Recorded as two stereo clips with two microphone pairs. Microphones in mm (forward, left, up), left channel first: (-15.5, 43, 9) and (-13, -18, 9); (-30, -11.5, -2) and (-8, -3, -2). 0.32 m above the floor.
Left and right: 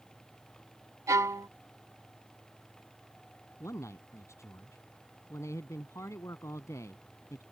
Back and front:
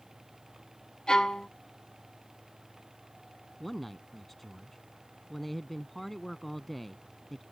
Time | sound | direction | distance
1.1 | a violin | 110° right | ?
3.6 | a man speaking | 115° left | ?